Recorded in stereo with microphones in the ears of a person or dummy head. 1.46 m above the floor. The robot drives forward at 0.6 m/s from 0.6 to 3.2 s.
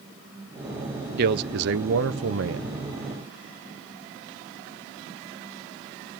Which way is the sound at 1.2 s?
55° right (ahead or behind).